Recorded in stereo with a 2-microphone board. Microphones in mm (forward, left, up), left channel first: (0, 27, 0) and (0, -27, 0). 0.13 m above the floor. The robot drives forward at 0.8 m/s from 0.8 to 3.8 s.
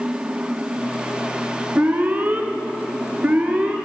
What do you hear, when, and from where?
1.8 s an alarm: 30° right (ahead or behind), 1.5 m; by 3.8 s 25° right (ahead or behind), 1.7 m